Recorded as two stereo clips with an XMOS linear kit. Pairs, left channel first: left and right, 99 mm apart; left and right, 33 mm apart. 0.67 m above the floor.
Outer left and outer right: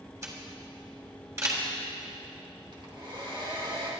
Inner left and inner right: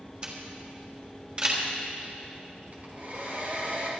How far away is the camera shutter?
About 3 m.